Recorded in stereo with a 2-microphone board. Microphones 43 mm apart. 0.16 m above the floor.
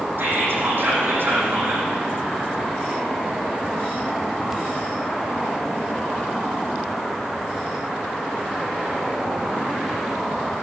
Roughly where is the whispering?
Right.